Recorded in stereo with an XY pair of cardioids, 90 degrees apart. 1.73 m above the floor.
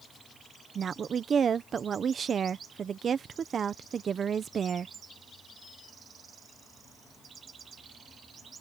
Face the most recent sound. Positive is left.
turn(degrees=-55)